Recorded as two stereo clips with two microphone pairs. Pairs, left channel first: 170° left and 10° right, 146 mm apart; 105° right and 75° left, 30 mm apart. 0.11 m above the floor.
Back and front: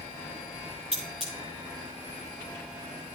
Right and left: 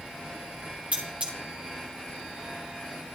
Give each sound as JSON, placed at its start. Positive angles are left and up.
{"t": 0.9, "sound": "cutlery clinking", "azimuth_deg": 35, "distance_m": 6.0}